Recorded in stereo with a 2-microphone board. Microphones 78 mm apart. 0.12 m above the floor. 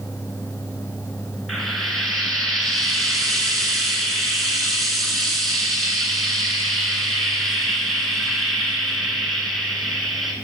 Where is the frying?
5° left (ahead or behind), 1.9 m.